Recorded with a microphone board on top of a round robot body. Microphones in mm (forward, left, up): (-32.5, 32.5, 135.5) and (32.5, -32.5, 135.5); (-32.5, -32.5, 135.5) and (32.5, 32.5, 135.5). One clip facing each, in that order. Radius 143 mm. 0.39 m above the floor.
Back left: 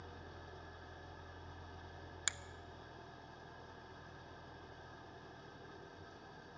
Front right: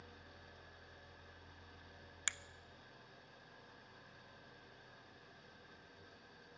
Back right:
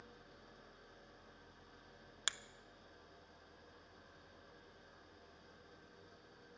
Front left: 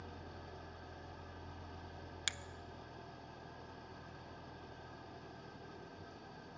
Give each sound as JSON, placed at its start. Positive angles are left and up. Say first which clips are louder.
{"t": 0.0, "sound": "an engine running", "louder": "back left 6 dB, front left 8 dB", "azimuth_deg": 75, "distance_m": 0.8}
{"t": 2.3, "sound": "a finger snap", "louder": "back left 1 dB, back right 2 dB", "azimuth_deg": -160, "distance_m": 0.6}